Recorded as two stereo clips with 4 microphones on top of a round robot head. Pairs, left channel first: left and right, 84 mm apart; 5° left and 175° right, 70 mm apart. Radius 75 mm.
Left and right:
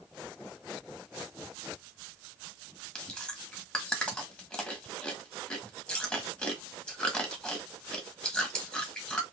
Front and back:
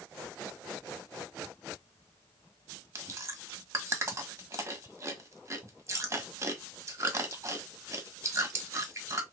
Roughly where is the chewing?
Behind.